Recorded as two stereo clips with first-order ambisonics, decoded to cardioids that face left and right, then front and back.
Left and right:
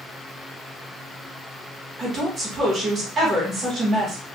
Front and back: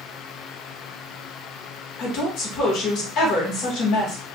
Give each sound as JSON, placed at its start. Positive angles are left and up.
{"t": 2.0, "sound": "a woman speaking", "azimuth_deg": -30, "distance_m": 2.0}